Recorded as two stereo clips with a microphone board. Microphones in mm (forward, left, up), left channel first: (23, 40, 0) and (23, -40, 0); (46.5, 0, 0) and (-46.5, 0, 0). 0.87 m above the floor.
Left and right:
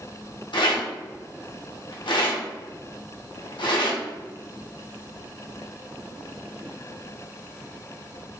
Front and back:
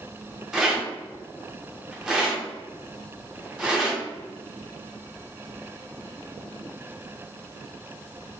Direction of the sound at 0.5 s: 95° left.